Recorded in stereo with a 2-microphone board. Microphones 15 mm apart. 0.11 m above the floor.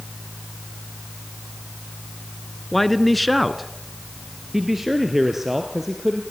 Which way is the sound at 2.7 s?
10° left (ahead or behind).